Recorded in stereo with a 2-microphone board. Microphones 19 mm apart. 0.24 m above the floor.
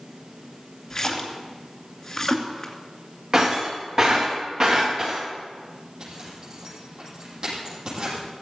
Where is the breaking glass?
35° right (ahead or behind), 8.5 m.